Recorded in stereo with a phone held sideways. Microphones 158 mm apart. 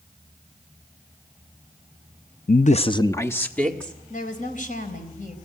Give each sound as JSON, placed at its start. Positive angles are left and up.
{"t": 2.5, "sound": "a man speaking", "side_deg": 65, "distance_m": 0.5}
{"t": 4.1, "sound": "a woman speaking", "side_deg": 55, "distance_m": 4.0}